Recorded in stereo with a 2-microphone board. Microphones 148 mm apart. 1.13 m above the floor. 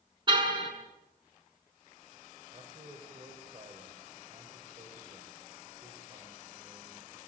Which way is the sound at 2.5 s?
35° right (ahead or behind).